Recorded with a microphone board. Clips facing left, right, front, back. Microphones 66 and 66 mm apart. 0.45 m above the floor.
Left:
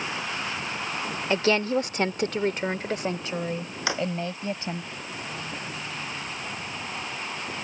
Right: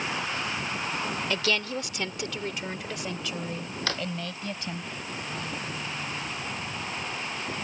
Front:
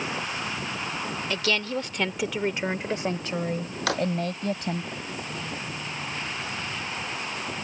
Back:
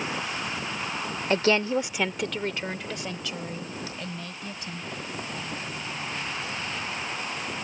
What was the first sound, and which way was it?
A woman speaking, 140° left.